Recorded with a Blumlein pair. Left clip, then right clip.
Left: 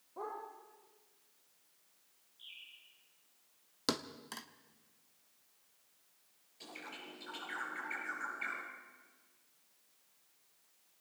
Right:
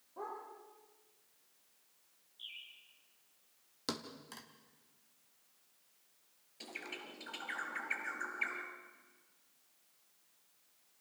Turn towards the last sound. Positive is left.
turn(degrees=-70)